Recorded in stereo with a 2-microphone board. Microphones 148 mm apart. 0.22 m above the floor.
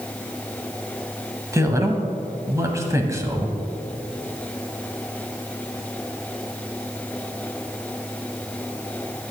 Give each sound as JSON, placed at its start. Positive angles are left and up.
{"t": 1.5, "sound": "a man speaking", "side_deg": -20, "distance_m": 1.2}